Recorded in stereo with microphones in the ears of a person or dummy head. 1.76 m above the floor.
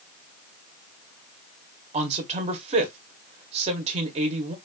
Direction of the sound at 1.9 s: 35° right (ahead or behind).